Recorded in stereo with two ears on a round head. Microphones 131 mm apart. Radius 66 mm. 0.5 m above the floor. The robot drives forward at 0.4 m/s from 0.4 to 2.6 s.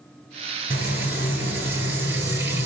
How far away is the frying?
About 5.5 m.